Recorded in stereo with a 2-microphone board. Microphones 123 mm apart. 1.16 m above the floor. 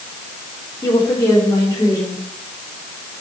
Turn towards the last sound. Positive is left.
turn(degrees=25)  # may be behind; listen again after turning